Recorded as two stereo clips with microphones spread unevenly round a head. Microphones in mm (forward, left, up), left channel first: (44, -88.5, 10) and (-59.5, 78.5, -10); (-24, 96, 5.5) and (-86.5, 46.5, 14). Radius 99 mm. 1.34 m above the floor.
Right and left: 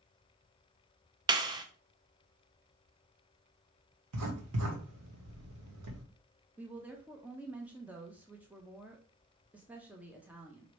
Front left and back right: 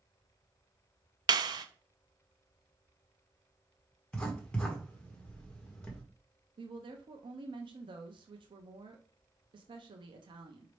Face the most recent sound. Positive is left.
turn(degrees=-155)